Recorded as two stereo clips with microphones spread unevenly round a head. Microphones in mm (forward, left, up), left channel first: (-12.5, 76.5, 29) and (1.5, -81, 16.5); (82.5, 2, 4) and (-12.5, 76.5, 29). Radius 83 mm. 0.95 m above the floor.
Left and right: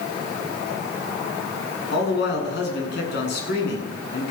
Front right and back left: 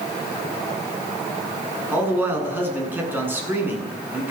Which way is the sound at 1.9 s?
70° left.